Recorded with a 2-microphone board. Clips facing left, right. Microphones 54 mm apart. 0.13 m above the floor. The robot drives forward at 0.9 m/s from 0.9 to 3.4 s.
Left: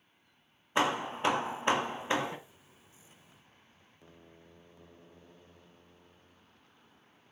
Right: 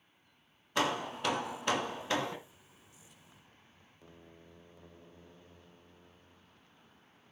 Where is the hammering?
25° left (ahead or behind), 1.0 m; by 2.4 s 20° left (ahead or behind), 1.1 m.